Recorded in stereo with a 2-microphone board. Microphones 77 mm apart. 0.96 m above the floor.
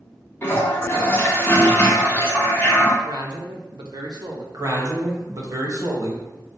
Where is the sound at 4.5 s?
50° right (ahead or behind), 1.0 m.